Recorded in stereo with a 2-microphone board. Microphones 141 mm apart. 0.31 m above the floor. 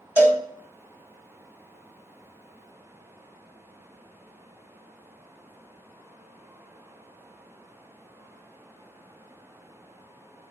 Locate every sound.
0.2 s a cowbell: 15° right (ahead or behind), 0.8 m